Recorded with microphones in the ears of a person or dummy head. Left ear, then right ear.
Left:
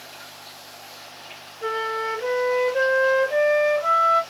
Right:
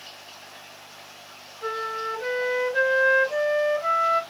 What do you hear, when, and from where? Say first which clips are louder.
1.6 s a flute: left 3 dB; centre (ahead or behind), 1.1 m